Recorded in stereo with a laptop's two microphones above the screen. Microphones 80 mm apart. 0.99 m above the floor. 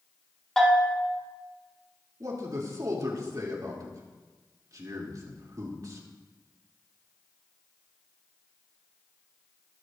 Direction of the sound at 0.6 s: 10° left (ahead or behind).